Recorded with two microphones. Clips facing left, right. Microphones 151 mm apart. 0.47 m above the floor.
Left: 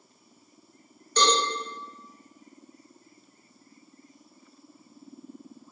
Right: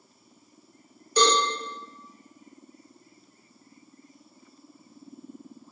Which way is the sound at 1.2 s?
10° right (ahead or behind).